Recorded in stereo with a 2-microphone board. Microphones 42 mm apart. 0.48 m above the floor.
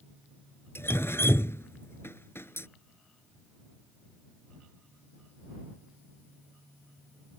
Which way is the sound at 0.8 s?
75° left (ahead or behind).